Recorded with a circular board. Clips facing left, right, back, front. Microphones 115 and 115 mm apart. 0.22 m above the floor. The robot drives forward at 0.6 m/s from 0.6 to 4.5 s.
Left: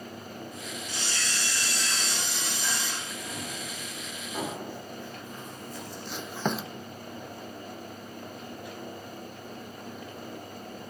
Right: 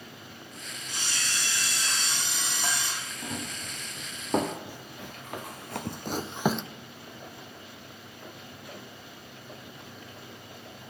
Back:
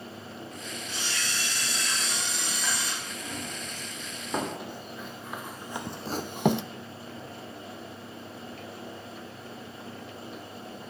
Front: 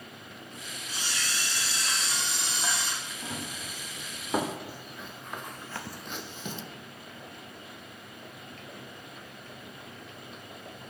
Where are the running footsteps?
70° right, 3.5 m; by 6.6 s 170° left, 0.5 m.